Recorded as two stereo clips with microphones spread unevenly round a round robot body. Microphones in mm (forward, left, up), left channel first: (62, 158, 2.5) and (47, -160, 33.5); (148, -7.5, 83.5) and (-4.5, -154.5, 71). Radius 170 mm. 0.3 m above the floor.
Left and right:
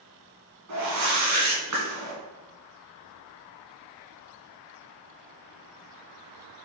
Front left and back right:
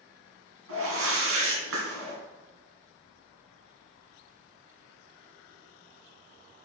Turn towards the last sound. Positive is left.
turn(degrees=-140)